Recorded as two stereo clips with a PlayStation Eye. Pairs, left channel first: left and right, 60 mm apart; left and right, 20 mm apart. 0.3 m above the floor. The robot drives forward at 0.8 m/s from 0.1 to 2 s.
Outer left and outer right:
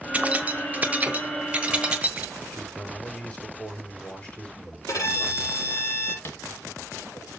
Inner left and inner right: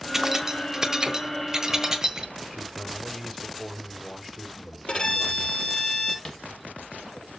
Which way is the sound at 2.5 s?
20° left (ahead or behind).